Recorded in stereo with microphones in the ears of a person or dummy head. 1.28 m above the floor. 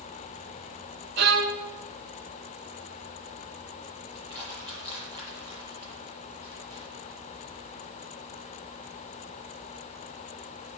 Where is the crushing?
30° right (ahead or behind), 8.5 m.